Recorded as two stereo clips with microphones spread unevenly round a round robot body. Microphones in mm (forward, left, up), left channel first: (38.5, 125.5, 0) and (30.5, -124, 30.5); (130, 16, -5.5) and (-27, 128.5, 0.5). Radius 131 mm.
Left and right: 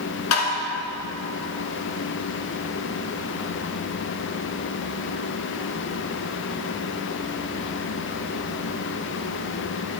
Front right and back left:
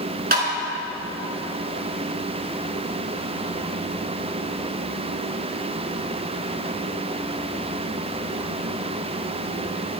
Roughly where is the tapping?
Left.